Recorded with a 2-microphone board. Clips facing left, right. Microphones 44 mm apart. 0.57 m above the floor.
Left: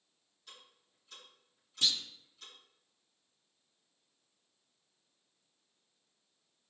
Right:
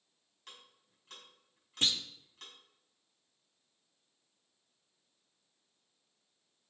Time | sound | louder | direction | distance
0.5 | ticking | right 1 dB | 65° right (ahead or behind) | 5 m
1.8 | a clunk | right 1 dB | 40° right (ahead or behind) | 0.7 m